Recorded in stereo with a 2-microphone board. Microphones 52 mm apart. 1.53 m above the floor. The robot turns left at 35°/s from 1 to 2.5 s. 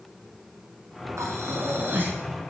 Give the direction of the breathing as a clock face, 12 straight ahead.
4 o'clock.